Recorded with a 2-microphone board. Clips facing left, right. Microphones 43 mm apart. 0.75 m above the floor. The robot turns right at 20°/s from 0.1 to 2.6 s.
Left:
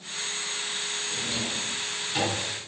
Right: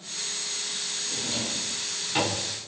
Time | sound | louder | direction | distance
1.1 | a drawer | even | 10° right (ahead or behind) | 4 m